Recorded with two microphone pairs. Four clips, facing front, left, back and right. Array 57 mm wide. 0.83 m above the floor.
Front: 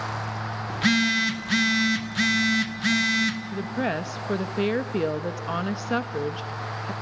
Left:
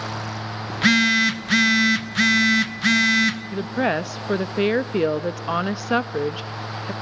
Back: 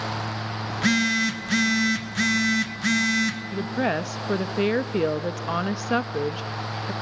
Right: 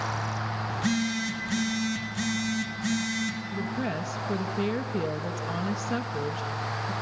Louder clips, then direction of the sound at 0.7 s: Left 12 dB, even; 90° left.